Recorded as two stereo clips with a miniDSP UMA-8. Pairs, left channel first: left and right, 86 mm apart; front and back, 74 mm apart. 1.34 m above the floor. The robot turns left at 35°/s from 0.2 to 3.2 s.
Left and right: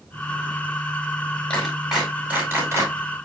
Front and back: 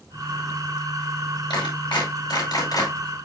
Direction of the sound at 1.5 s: 15° left.